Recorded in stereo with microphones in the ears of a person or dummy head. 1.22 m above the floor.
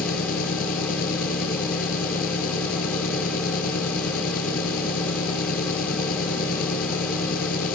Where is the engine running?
45° left (ahead or behind).